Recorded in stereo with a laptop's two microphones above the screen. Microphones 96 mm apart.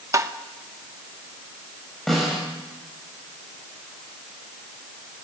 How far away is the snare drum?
About 7 m.